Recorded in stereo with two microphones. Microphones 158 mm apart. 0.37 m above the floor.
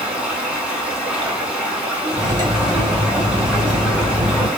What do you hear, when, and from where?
0.0 s running water: 5° right (ahead or behind), 0.9 m
2.1 s cutlery clinking: 25° right (ahead or behind), 0.9 m